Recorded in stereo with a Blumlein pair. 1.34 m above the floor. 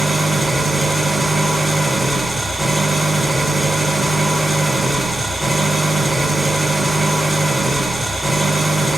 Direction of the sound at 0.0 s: 5° right.